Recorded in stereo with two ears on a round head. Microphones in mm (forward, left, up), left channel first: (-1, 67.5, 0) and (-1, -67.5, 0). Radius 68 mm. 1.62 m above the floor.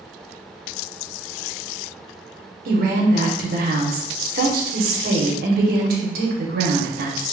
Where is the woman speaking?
65° right (ahead or behind), 1.1 m.